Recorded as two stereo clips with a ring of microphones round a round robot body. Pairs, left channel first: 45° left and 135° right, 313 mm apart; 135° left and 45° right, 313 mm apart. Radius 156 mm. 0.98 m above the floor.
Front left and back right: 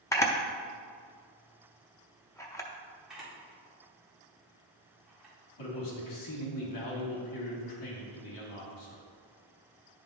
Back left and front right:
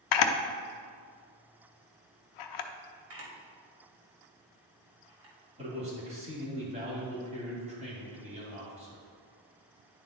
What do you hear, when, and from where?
0.1 s a camera shutter: 125° left, 0.5 m
3.1 s a camera shutter: 45° right, 1.7 m
5.6 s a man speaking: 25° left, 2 m